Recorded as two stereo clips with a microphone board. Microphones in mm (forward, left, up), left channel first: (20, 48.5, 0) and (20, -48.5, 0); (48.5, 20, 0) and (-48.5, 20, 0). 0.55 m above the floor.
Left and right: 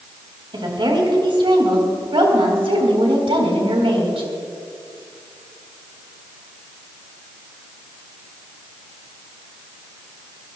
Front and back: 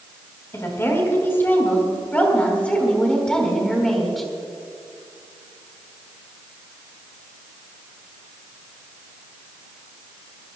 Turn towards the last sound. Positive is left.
turn(degrees=-90)